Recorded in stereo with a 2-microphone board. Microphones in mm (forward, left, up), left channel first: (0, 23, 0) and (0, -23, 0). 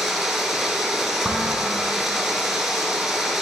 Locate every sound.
0.0 s running water: 5° right (ahead or behind), 2 m
1.2 s dishes clattering: 25° right (ahead or behind), 3 m